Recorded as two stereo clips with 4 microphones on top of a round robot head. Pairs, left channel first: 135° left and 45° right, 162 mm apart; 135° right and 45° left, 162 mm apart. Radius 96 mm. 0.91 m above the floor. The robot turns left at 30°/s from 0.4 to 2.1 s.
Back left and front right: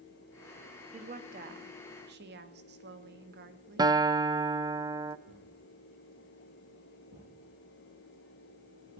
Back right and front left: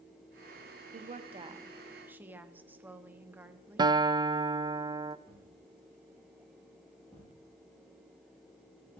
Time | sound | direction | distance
0.9 | a woman speaking | straight ahead | 1.2 m
3.8 | a guitar | straight ahead | 0.6 m
5.3 | a thud | 55° right | 9 m